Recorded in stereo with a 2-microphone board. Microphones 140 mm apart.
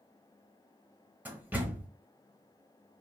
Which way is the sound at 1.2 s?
15° right (ahead or behind).